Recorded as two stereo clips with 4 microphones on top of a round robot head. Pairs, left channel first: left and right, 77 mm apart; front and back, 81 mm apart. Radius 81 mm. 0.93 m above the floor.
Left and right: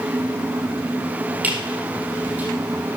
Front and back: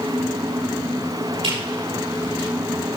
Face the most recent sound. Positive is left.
turn(degrees=-160)